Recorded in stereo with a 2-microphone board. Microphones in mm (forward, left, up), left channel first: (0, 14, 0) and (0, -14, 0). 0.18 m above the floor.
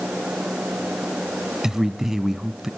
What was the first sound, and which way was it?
A man speaking, 15° right (ahead or behind).